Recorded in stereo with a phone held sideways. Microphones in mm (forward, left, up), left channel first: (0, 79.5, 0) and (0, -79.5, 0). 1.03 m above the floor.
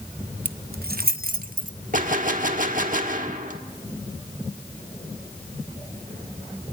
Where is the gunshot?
60° right (ahead or behind), 1.4 m.